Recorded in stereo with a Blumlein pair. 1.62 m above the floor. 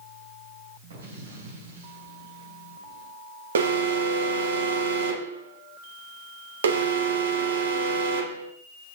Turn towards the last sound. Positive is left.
turn(degrees=-65)